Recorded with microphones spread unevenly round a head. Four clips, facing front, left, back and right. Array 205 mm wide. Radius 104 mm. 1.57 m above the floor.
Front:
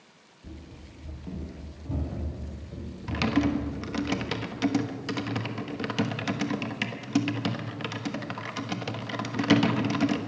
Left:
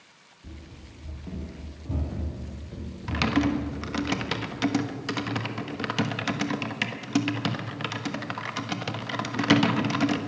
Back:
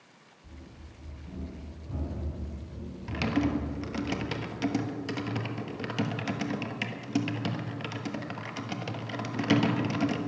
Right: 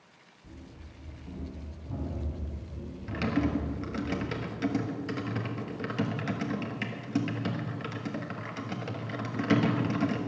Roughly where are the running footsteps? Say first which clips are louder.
Left 3 dB, front 5 dB; ahead left.